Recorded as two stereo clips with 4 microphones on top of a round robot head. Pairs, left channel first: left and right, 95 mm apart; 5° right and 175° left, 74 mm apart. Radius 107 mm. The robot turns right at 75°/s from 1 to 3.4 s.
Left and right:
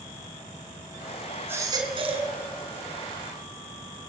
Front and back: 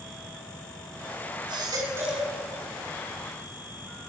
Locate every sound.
1.5 s a baby crying: 160° right, 4.5 m; by 2.3 s 95° right, 4.5 m